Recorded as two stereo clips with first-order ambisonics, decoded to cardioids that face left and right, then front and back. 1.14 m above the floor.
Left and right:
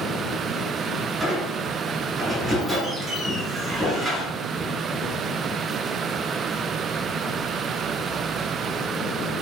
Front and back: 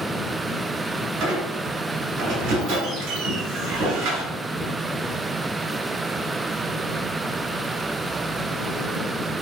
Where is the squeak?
165° right, 1.8 m.